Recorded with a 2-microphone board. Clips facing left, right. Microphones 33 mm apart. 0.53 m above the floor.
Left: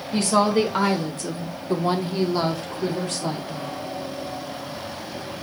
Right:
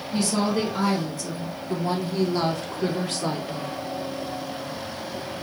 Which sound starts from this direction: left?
A woman speaking, at 0.1 s.